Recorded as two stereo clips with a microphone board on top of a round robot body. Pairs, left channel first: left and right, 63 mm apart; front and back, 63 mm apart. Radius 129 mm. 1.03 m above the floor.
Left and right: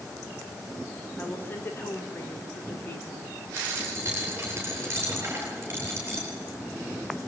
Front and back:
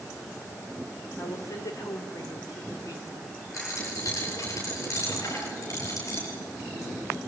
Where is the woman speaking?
30° left, 3 m.